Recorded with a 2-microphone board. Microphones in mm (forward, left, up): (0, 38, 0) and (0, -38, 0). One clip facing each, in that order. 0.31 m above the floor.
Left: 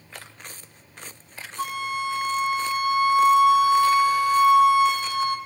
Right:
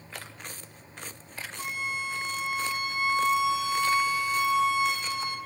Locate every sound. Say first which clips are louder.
1.6 s a flute: left 7 dB; 60° left (ahead or behind), 1.0 m